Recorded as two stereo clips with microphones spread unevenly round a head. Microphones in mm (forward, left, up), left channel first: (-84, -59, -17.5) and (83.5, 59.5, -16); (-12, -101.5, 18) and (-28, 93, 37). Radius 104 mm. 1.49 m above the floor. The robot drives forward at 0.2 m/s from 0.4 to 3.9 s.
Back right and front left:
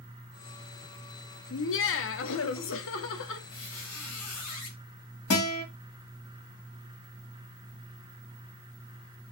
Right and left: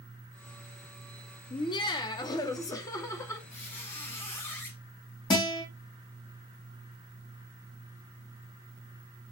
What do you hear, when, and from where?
1.5 s laughter: 155° right, 0.7 m; by 3.4 s 165° right, 1.1 m
3.5 s a squeak: 165° right, 3.5 m
5.3 s a guitar: 155° right, 2.5 m